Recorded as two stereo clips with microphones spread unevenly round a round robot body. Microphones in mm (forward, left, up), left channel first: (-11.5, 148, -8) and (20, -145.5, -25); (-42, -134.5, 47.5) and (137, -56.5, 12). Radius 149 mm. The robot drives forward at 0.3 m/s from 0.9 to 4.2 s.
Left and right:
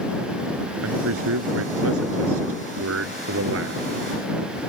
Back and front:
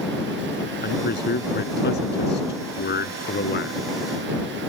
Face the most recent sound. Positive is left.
turn(degrees=-130)